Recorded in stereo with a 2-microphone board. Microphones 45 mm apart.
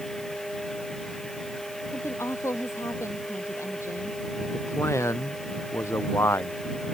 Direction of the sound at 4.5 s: 80° left.